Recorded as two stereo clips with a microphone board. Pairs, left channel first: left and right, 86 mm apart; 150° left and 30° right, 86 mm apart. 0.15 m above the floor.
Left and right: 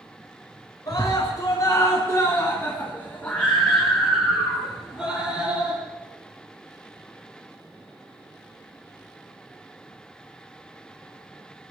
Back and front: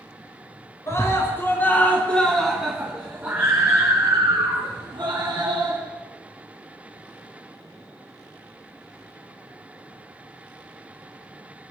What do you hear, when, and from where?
0.9 s a scream: 115° left, 2 m; by 5.8 s 15° right, 3 m